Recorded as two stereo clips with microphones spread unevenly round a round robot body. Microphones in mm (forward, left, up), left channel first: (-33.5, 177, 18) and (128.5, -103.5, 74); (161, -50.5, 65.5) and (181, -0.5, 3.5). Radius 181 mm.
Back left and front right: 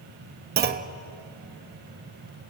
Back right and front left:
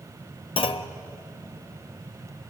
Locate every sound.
0.6 s a clunk: 115° right, 0.8 m